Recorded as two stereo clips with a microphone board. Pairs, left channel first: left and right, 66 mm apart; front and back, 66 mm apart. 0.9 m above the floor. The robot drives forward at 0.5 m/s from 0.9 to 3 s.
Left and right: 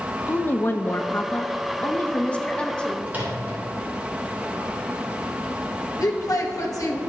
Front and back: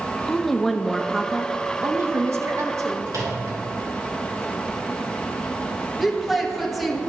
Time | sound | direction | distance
0.3 | a woman speaking | 80° left | 0.6 m
3.1 | a microwave | 155° right | 2.5 m
6.0 | a woman speaking | 90° left | 1.0 m